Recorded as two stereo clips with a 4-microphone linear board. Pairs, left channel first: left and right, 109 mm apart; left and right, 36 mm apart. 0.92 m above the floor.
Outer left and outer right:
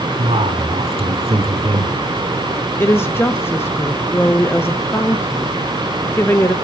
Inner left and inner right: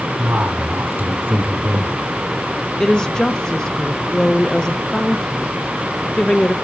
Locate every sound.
0.2 s a man speaking: 70° right (ahead or behind), 2 m
2.8 s a woman speaking: 20° left (ahead or behind), 0.5 m